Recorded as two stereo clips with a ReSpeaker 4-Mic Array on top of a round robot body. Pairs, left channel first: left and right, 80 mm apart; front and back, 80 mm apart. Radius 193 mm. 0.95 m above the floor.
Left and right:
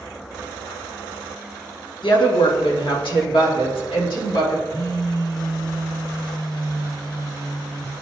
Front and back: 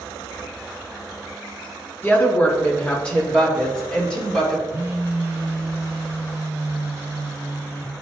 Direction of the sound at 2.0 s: 65° left.